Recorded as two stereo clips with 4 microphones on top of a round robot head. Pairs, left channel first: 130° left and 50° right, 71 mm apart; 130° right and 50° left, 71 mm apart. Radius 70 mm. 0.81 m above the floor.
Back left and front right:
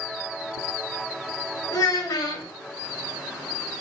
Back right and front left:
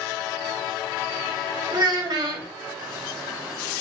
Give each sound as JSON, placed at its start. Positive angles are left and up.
{"t": 1.7, "sound": "a child speaking", "azimuth_deg": 85, "distance_m": 0.6}